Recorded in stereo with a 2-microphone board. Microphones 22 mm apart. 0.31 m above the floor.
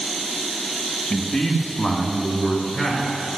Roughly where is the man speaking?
Left.